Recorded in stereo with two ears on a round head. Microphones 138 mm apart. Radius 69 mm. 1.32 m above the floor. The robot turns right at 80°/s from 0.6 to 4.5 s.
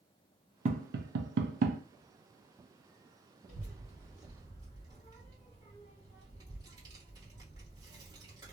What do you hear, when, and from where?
0.7 s tapping: 45° right (ahead or behind), 0.6 m
3.5 s a child speaking: 55° left (ahead or behind), 1.6 m; by 8.5 s 25° right (ahead or behind), 1.6 m